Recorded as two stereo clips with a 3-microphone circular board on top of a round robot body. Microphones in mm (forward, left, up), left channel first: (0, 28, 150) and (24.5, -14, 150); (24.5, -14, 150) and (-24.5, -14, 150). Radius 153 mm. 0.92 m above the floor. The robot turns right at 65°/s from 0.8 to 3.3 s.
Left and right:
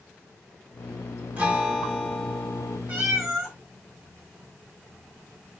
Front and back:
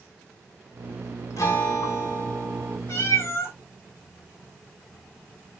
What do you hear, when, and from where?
1.4 s a guitar: 5° right, 3 m; by 2.8 s 90° left, 3 m
2.9 s a cat meowing: straight ahead, 8 m; by 3.6 s 30° left, 8 m